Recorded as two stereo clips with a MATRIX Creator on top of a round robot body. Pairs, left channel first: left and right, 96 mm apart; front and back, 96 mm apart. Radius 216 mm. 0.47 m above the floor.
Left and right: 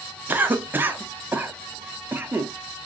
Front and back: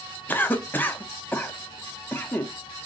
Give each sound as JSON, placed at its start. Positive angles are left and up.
{"t": 0.3, "sound": "a cough", "azimuth_deg": -45, "distance_m": 0.8}